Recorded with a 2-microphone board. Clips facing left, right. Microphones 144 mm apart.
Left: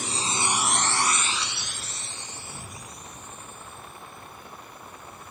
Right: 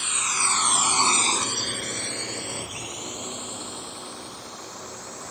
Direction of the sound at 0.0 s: 40° left (ahead or behind).